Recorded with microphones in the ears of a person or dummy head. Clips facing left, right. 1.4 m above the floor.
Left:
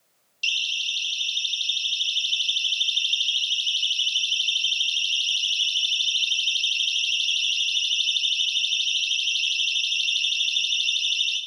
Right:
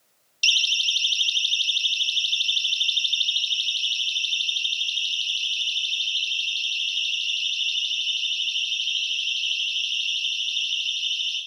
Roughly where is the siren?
Right.